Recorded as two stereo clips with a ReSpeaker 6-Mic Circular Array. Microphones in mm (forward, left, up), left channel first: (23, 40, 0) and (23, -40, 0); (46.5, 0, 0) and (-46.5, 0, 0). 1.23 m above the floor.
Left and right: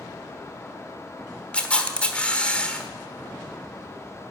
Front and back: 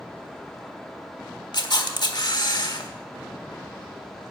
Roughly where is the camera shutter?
Ahead.